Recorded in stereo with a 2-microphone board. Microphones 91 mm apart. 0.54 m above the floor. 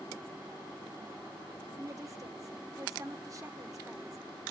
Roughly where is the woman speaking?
Right.